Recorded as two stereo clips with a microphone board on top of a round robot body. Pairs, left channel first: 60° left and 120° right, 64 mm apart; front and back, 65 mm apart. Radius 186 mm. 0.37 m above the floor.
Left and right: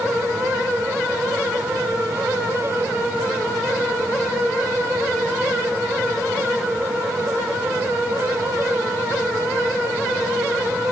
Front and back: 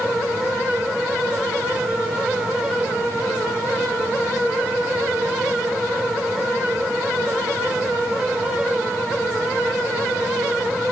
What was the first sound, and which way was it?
Only background noise.